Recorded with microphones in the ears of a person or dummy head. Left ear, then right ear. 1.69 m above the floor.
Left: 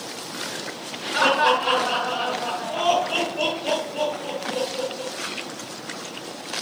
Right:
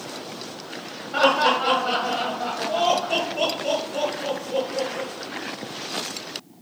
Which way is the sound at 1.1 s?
45° right (ahead or behind).